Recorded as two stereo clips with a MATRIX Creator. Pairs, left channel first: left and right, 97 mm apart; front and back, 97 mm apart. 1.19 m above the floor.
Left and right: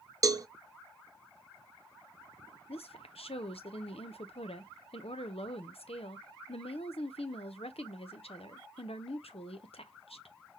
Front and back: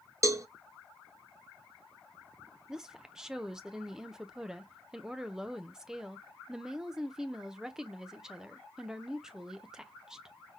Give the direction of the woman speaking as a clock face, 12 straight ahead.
9 o'clock.